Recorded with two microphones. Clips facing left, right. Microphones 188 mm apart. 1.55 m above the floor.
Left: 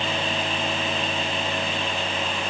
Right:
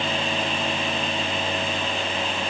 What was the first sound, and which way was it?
Only background noise.